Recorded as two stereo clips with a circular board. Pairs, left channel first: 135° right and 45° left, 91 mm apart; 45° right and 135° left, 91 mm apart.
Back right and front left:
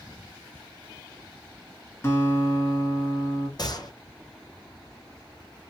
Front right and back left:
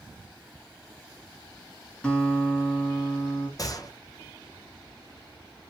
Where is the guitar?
110° right, 1.8 m.